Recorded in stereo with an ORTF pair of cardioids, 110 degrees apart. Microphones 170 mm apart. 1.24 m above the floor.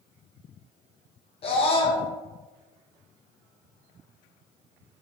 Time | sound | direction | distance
1.4 | a scream | 35° left | 0.9 m